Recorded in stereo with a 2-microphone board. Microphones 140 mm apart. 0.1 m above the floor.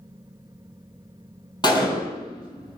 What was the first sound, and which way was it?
A gunshot, 35° left (ahead or behind).